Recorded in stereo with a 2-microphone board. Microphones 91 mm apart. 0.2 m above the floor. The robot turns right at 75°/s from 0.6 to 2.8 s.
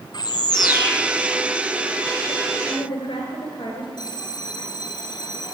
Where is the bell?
50° left (ahead or behind), 1.5 m.